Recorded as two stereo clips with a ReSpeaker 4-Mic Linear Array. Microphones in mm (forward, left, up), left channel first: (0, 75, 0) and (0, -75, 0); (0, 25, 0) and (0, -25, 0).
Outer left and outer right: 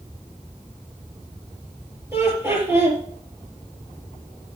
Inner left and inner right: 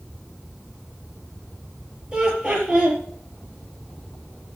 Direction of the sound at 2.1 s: 15° right (ahead or behind).